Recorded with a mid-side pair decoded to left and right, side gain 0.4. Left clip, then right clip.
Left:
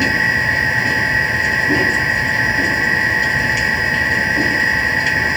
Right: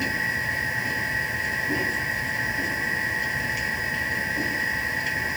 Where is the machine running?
70° left.